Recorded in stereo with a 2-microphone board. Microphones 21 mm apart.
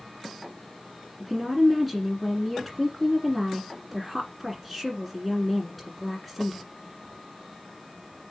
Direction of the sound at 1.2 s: Centre (ahead or behind).